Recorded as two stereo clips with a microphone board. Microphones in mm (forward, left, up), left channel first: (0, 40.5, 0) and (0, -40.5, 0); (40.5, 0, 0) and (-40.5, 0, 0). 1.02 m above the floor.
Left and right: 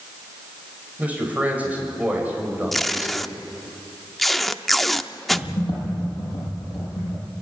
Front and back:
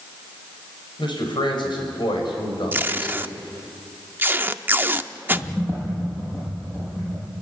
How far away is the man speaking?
About 5 m.